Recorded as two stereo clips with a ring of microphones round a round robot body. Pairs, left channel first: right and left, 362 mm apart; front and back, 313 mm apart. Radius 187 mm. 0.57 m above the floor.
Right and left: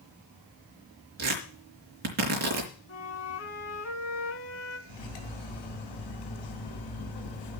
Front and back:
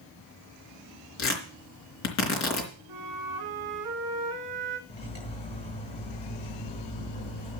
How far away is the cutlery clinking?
About 3 m.